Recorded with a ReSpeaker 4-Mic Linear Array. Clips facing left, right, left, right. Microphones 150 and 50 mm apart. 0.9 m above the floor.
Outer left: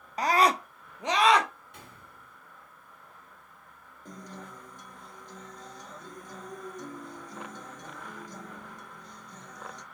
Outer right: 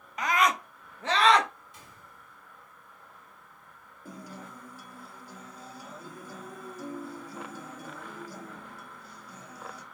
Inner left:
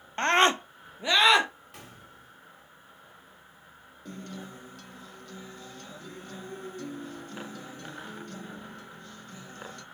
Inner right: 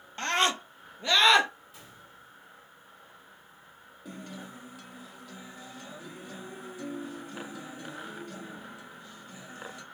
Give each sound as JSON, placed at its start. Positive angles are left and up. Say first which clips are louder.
{"t": 0.2, "sound": "a scream", "louder": "outer left 3 dB, inner left 5 dB", "side_deg": 35, "distance_m": 0.7}
{"t": 1.7, "sound": "a gunshot", "louder": "outer left 2 dB, inner left 2 dB", "side_deg": 60, "distance_m": 1.1}
{"t": 4.0, "sound": "a guitar", "louder": "even, inner left 1 dB", "side_deg": -5, "distance_m": 0.8}